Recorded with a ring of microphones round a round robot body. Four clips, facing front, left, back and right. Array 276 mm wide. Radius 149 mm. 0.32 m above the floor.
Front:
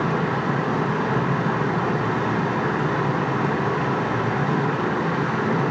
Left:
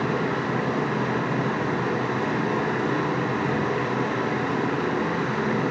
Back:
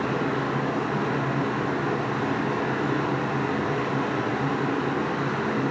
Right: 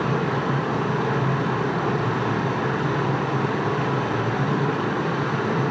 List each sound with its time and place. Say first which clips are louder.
0.0 s running water: right 1 dB, front 3 dB; 25° right, 5.5 m